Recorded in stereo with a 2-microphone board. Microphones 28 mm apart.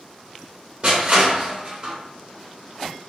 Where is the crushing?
50° right (ahead or behind), 2 m.